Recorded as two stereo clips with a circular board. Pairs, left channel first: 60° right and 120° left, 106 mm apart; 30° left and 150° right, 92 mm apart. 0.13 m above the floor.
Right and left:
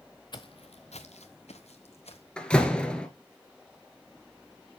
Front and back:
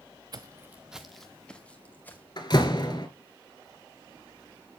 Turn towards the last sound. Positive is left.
turn(degrees=20)